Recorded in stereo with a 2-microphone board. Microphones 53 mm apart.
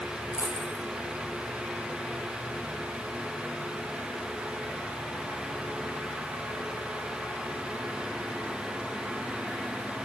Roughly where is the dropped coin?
Left.